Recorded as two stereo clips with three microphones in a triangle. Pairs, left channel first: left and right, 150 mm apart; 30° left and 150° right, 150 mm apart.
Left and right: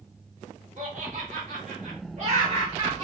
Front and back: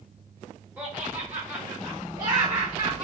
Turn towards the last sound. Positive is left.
turn(degrees=-115)